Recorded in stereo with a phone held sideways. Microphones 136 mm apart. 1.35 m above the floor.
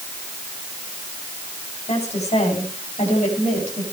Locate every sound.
1.9 s a woman speaking: 55° left (ahead or behind), 8 m; by 3.8 s 65° left (ahead or behind), 8 m